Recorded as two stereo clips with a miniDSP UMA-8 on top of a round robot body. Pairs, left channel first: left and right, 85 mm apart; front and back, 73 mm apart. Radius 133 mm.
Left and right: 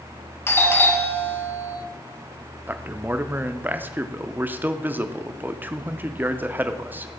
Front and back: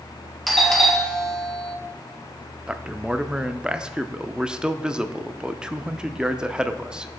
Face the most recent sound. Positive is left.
turn(degrees=-120)